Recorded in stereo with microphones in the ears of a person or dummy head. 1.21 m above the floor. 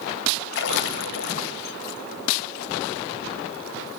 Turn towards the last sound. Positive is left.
turn(degrees=70)  # may be behind; listen again after turning